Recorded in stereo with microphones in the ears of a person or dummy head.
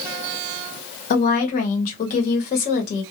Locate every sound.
1.1 s a woman speaking: 45° left (ahead or behind), 0.9 m